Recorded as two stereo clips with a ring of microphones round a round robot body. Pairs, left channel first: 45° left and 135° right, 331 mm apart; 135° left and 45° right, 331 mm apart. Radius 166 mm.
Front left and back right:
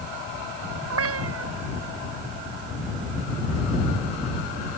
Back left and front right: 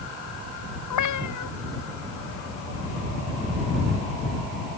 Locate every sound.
0.9 s a cat meowing: 175° left